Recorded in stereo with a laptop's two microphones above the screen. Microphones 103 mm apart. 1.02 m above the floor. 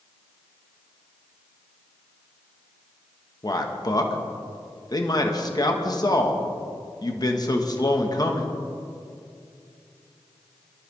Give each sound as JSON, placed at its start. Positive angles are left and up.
{"t": 3.4, "sound": "a man speaking", "side_deg": 40, "distance_m": 1.3}